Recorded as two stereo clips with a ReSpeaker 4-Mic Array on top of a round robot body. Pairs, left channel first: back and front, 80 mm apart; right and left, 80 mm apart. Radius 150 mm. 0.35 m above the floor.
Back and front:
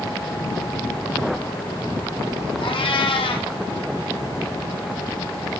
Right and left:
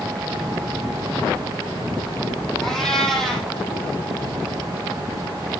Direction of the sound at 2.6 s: 175° right.